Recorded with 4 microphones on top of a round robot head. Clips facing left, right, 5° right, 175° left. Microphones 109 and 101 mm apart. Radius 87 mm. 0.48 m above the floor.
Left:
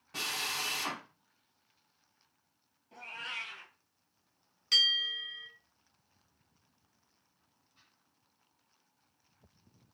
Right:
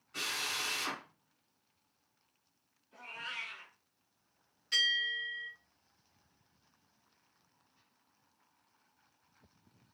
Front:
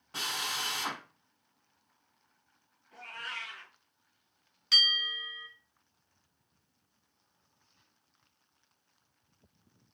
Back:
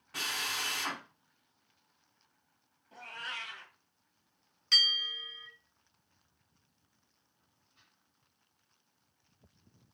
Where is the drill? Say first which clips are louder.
Left 2 dB, front 1 dB; 55° left, 4 m.